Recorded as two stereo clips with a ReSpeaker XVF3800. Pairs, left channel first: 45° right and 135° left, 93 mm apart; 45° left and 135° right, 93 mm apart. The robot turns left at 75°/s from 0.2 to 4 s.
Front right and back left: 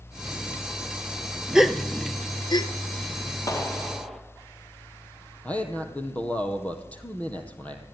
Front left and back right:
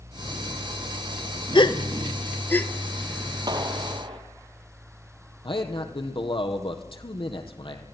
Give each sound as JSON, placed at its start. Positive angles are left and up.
{"t": 1.6, "sound": "a gasp", "azimuth_deg": 55, "distance_m": 1.1}
{"t": 3.5, "sound": "a clap", "azimuth_deg": -95, "distance_m": 3.0}
{"t": 5.4, "sound": "a man speaking", "azimuth_deg": 30, "distance_m": 3.5}